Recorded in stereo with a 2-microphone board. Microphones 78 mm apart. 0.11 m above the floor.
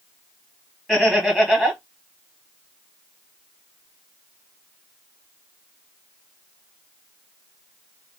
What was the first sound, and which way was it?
Laughter, 5° left (ahead or behind).